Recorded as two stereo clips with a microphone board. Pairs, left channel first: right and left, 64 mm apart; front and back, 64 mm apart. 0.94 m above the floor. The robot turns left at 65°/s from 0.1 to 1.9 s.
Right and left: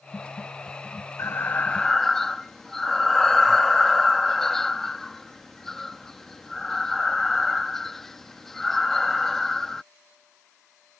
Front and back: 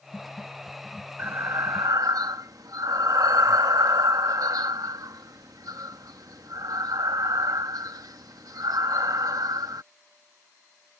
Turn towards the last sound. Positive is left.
turn(degrees=-175)